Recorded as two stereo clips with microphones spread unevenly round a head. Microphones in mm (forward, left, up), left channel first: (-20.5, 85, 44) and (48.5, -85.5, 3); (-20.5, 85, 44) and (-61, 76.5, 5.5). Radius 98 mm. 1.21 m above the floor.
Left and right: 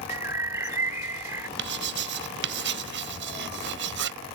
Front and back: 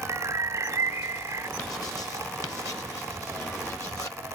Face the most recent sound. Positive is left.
turn(degrees=-40)